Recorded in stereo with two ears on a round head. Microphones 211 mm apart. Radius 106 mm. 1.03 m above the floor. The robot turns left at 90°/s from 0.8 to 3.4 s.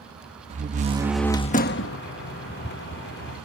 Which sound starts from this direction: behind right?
A door slam, at 0.5 s.